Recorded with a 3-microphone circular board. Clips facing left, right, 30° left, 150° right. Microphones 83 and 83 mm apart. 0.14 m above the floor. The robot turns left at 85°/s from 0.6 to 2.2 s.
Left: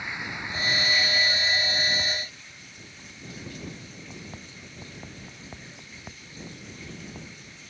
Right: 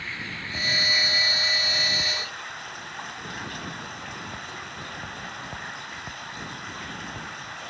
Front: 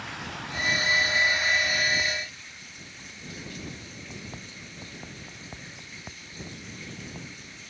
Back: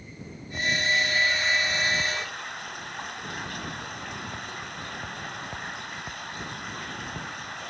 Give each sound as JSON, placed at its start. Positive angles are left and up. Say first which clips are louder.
{"t": 0.0, "sound": "running water", "louder": "left 1 dB, front 6 dB", "azimuth_deg": 15}